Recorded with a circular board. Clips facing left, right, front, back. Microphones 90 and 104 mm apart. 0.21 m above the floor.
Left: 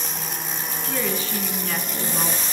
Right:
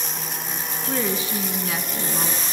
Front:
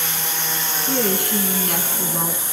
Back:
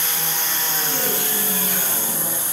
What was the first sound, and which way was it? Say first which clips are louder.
A woman speaking: right 2 dB, front 8 dB; 30° right.